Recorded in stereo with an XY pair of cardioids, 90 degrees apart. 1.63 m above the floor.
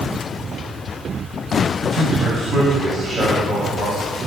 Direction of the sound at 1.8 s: 40° right.